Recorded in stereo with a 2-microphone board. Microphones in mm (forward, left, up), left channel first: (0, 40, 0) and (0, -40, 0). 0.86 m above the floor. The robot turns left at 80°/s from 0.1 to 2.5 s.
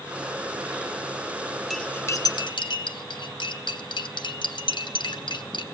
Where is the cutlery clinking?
Centre (ahead or behind), 0.7 m; by 5.7 s 65° left (ahead or behind), 0.7 m.